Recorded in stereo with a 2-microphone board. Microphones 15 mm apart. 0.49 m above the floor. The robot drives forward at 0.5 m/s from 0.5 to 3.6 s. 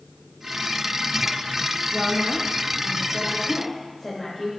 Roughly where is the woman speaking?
Centre.